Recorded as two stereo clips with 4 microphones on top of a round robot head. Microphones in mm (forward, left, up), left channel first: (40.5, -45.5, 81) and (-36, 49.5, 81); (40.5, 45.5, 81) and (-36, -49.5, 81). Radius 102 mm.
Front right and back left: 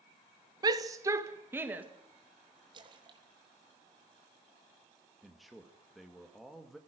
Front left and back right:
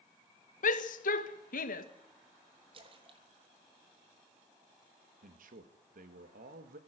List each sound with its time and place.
0.6 s a shout: 70° left, 1.6 m; by 1.9 s 50° left, 2 m
2.7 s a splash: 175° right, 3 m
5.2 s a man speaking: 140° right, 2 m